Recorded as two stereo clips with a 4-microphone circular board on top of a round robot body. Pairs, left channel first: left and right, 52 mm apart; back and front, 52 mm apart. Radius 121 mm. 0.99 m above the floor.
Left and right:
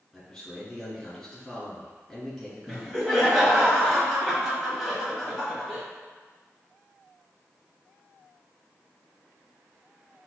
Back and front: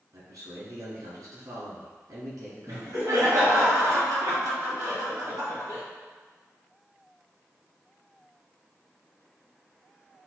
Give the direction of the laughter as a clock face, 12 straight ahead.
12 o'clock.